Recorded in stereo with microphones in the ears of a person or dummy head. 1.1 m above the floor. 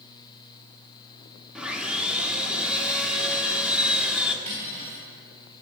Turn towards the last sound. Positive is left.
turn(degrees=-45)  # may be behind; listen again after turning